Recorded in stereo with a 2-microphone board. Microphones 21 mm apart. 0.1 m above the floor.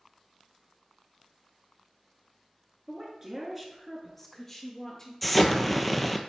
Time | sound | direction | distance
2.9 | a woman speaking | 30° right (ahead or behind) | 1.6 m
5.2 | an explosion | 5° left (ahead or behind) | 0.7 m